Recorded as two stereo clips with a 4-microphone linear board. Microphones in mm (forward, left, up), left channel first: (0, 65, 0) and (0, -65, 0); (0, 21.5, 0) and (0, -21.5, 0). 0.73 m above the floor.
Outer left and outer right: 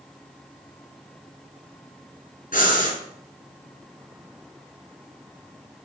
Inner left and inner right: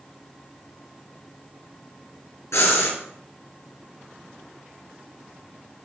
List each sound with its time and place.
2.5 s breathing: 75° left (ahead or behind), 4.5 m